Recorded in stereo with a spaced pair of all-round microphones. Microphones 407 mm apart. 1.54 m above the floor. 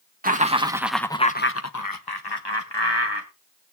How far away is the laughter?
About 1.8 m.